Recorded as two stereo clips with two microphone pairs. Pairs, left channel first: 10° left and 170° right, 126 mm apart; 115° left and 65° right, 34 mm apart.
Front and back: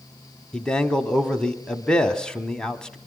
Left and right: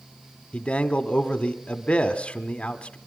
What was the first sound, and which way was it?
A man speaking, 90° left.